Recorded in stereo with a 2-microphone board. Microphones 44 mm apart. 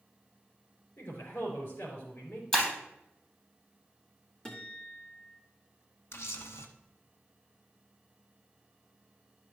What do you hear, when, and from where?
1.0 s a man speaking: 70° left (ahead or behind), 4.5 m
2.5 s breaking glass: 15° left (ahead or behind), 3.5 m
4.5 s a guitar: 15° left (ahead or behind), 2.0 m
6.1 s a camera shutter: 65° left (ahead or behind), 1.0 m